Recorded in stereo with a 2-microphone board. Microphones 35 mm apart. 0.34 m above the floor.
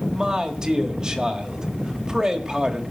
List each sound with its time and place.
0.1 s a man speaking: 25° right (ahead or behind), 1.6 m